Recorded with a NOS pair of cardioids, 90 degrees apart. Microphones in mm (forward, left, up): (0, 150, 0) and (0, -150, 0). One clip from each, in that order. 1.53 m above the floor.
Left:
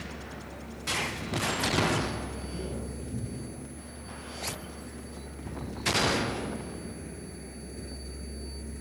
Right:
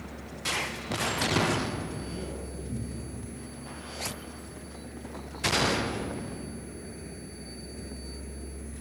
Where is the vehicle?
Straight ahead.